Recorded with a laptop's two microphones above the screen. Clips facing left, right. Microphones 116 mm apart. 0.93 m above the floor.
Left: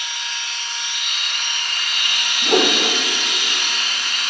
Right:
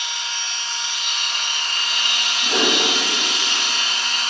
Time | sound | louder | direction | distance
0.0 | a machine running | right 1 dB | 30° right (ahead or behind) | 0.8 m
2.4 | a whoosh | left 4 dB | 50° left (ahead or behind) | 0.8 m